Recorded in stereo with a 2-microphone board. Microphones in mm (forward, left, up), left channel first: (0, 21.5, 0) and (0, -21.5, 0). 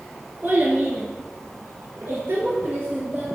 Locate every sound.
0.4 s a child speaking: 55° right (ahead or behind), 2 m